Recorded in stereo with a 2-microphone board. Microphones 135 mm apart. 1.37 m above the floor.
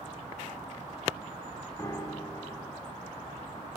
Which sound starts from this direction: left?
A piano, at 1.8 s.